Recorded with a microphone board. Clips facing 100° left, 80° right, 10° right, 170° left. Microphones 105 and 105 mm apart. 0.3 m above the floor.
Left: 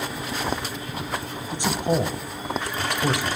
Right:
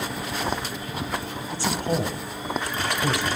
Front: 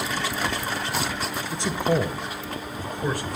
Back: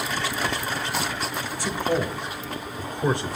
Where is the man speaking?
40° left, 1.1 m; by 3.4 s 160° left, 0.9 m.